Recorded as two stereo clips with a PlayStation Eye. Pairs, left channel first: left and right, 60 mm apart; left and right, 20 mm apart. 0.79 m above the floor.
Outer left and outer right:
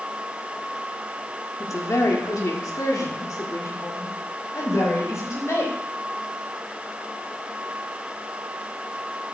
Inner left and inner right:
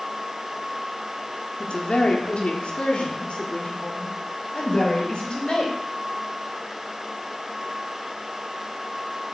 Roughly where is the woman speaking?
Left.